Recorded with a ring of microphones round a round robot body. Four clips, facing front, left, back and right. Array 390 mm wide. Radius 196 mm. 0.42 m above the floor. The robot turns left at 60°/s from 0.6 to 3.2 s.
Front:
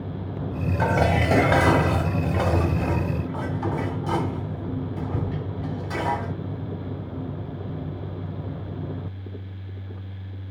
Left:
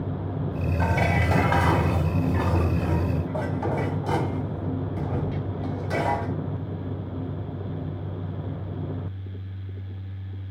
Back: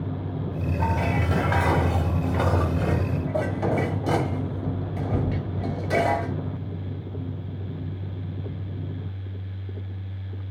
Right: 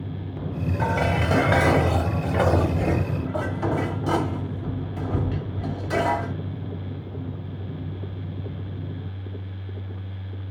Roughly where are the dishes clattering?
Ahead.